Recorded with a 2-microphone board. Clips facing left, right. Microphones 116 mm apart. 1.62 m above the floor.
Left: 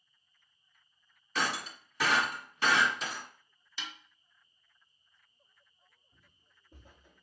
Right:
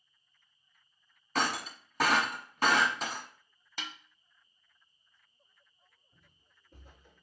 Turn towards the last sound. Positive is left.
turn(degrees=20)  # may be behind; listen again after turning